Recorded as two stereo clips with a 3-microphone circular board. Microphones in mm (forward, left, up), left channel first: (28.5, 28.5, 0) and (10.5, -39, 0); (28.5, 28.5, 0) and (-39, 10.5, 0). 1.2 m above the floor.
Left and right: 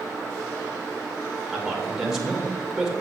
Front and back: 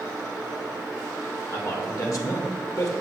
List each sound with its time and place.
1.5 s a man speaking: 25° right, 2 m